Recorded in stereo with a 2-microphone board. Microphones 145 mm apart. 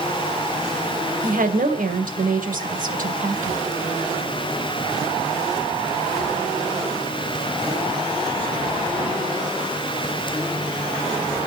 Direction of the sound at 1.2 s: 70° right (ahead or behind).